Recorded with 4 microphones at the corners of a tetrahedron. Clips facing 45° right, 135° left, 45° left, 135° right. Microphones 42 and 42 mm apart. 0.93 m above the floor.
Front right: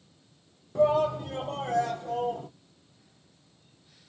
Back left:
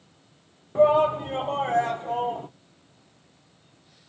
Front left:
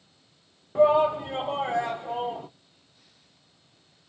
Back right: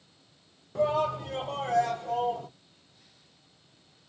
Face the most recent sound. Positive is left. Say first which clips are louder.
# back left 5 dB, front left 7 dB
turn(degrees=105)